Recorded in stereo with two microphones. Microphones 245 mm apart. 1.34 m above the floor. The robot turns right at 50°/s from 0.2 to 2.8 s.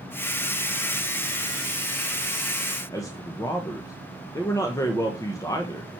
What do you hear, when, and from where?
2.9 s a man speaking: 15° left (ahead or behind), 1.1 m